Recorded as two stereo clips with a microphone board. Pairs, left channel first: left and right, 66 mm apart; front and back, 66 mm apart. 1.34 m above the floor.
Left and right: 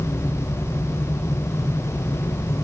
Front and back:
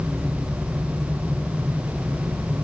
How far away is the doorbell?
No doorbell in this recording.